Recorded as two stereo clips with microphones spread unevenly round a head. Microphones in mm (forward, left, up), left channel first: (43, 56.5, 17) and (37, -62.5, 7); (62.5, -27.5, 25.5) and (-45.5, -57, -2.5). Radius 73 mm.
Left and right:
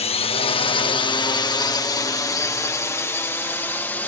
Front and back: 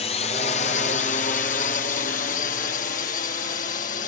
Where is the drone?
65° left; by 4.1 s 10° left.